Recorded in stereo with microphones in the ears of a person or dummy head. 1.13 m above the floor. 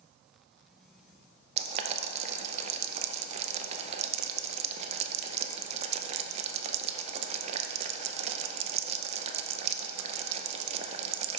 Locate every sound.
1.6 s boiling: 40° right (ahead or behind), 0.5 m